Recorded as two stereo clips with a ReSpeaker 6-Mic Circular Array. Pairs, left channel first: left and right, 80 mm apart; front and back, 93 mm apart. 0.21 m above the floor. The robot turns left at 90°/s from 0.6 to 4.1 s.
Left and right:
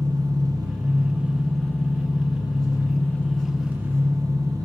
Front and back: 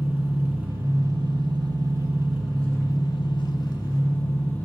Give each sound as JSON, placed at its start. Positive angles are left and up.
{"t": 0.0, "sound": "an engine running", "azimuth_deg": -110, "distance_m": 1.6}